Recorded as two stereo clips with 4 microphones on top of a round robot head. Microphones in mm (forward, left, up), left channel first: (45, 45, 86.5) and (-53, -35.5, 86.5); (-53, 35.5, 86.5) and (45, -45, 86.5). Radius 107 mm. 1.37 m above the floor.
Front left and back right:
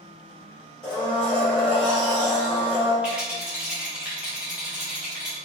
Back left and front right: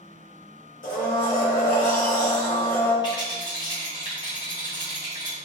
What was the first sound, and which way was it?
A blender, 120° left.